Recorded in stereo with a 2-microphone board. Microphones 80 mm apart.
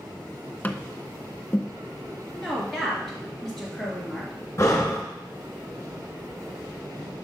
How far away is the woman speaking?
About 3 m.